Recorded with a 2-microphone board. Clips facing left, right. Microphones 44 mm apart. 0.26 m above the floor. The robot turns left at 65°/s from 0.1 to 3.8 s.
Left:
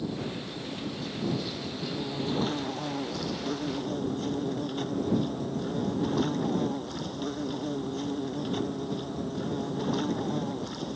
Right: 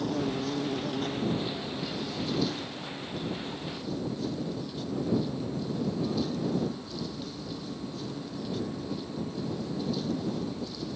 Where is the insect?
65° right; by 10.9 s 55° left.